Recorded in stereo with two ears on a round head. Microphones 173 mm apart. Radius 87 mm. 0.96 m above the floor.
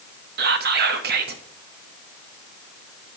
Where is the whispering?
55° right (ahead or behind), 0.8 m.